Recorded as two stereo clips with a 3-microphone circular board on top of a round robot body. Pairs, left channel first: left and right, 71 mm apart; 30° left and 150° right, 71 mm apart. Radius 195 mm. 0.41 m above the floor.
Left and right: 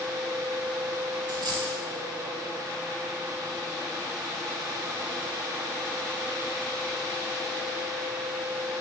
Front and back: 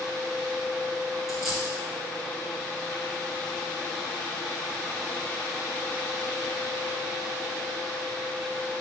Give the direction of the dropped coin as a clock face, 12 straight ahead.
2 o'clock.